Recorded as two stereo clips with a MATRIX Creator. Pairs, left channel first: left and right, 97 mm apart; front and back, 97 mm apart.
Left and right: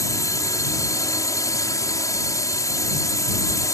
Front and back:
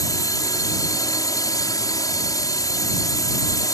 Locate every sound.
0.0 s a drone: 40° left